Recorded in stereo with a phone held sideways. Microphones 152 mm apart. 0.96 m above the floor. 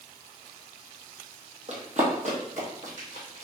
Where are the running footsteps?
50° right (ahead or behind), 1.5 m; by 3.5 s 55° right (ahead or behind), 2.5 m.